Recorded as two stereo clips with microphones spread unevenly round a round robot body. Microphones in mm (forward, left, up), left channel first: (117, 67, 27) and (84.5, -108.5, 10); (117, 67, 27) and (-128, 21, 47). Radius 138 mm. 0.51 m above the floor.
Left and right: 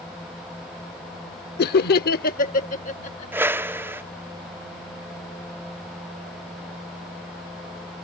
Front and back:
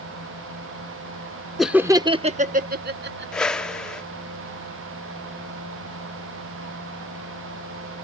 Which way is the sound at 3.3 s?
60° right.